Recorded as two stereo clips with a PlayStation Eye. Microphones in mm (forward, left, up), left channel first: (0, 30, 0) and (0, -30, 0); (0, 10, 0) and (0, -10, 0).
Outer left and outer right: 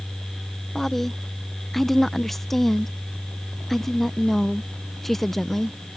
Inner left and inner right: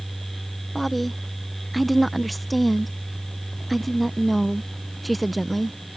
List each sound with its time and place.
0.8 s a woman speaking: 5° left (ahead or behind)